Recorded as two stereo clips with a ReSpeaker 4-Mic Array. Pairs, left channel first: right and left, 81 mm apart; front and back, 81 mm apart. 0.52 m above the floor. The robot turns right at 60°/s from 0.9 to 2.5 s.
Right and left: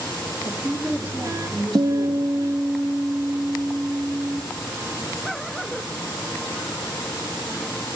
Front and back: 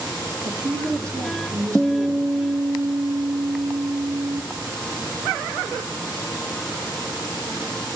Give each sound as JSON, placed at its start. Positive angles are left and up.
{"t": 0.5, "sound": "a woman speaking", "azimuth_deg": 135, "distance_m": 1.1}
{"t": 1.8, "sound": "a guitar", "azimuth_deg": 105, "distance_m": 0.8}